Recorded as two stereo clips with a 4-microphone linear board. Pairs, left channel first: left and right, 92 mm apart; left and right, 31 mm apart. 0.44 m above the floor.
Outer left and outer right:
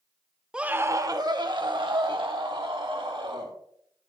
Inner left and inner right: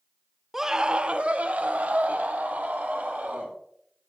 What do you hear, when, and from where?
0.5 s a scream: 10° right (ahead or behind), 0.7 m; by 3.5 s 70° right (ahead or behind), 3.5 m